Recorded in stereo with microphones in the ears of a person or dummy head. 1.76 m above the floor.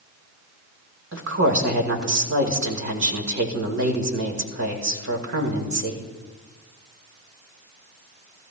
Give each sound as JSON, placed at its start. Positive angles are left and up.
{"t": 1.1, "sound": "a woman speaking", "side_deg": -65, "distance_m": 2.0}